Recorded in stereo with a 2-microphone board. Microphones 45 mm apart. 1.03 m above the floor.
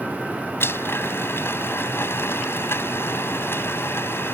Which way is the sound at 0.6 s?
55° left (ahead or behind).